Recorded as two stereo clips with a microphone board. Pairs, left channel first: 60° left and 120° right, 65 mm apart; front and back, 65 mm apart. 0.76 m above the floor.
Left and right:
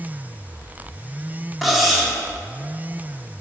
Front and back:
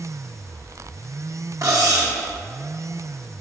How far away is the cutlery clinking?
About 1.0 m.